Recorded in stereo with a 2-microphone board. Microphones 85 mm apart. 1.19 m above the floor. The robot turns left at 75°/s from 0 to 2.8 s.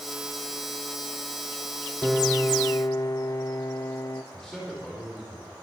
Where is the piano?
170° right, 0.6 m; by 4.2 s 135° left, 0.6 m.